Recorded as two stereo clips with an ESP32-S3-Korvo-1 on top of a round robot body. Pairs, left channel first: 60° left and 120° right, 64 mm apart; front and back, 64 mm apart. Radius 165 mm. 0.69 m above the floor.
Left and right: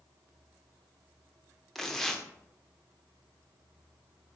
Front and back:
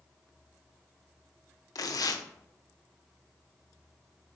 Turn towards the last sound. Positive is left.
turn(degrees=-25)